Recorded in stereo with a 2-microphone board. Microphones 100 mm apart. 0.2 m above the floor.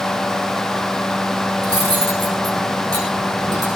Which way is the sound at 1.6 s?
45° right (ahead or behind).